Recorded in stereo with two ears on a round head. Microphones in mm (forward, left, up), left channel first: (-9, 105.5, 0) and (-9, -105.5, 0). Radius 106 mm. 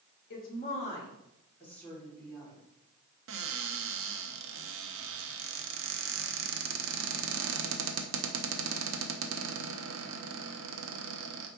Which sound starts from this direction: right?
A cupboard door, at 3.3 s.